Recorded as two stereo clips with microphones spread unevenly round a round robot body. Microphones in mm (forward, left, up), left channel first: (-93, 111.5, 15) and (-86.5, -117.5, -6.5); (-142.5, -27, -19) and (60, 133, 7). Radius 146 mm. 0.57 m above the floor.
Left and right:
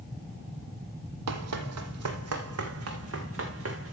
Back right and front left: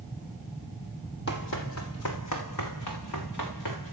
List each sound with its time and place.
1.3 s running footsteps: 85° right, 1.5 m; by 3.9 s 115° right, 4 m